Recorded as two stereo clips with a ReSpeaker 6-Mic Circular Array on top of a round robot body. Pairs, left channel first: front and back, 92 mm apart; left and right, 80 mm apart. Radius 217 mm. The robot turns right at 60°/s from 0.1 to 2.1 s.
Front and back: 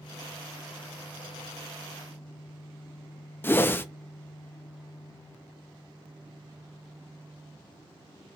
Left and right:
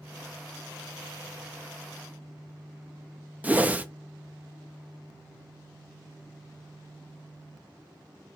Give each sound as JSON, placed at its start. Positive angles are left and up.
{"t": 3.4, "sound": "a whoosh", "azimuth_deg": -40, "distance_m": 0.7}